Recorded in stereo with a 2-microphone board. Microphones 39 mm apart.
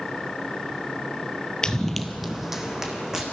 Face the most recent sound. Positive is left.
turn(degrees=-15)  # may be behind; listen again after turning